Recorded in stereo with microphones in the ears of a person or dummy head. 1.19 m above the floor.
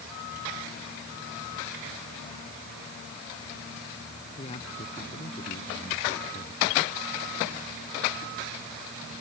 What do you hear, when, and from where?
4.4 s a man speaking: 30° left (ahead or behind)